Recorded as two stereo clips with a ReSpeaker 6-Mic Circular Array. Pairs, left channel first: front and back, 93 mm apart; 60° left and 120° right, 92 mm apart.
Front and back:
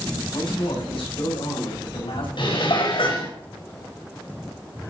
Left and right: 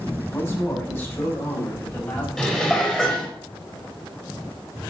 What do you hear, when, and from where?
0.3 s a man speaking: 5° right, 7.5 m
2.4 s dishes clattering: 20° right, 4 m